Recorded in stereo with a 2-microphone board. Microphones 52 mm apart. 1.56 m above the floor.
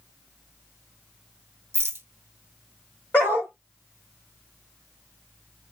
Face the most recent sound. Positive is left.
turn(degrees=30)  # may be behind; listen again after turning